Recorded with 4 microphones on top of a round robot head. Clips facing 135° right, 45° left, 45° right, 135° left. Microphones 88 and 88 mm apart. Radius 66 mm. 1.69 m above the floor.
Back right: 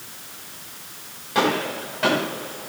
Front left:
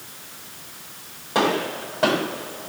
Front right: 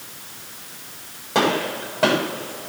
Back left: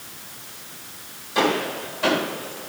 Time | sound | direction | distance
1.4 | a gunshot | 15° right | 7 m